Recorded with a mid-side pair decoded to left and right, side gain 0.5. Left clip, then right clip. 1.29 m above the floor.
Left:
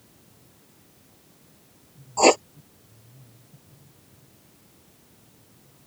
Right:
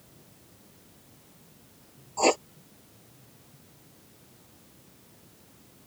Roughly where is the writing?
Ahead left.